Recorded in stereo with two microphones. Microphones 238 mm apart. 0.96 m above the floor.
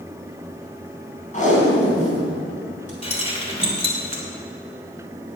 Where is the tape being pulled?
30° left (ahead or behind), 4 m.